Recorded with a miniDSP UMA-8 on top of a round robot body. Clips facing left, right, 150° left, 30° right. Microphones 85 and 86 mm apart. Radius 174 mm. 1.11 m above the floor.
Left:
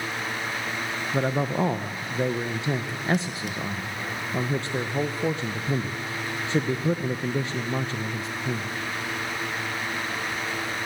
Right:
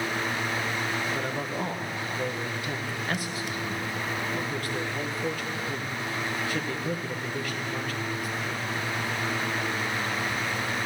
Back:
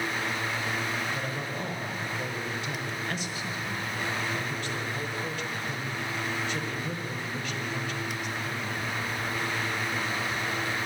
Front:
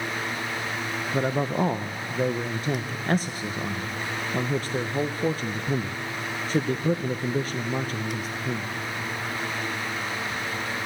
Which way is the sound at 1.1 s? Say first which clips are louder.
Left 5 dB, front 9 dB; 25° left.